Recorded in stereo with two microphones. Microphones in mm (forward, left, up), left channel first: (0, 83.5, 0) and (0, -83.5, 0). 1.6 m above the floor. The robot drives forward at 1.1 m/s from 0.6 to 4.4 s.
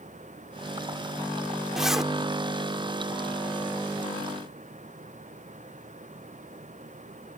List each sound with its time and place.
1.8 s a zipper: 5° right (ahead or behind)